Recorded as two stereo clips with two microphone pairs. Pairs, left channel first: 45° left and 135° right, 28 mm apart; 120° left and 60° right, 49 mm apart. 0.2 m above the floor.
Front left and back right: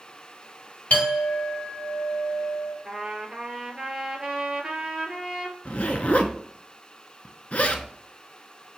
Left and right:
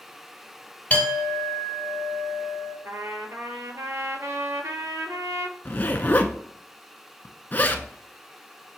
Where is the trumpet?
65° right, 0.8 m.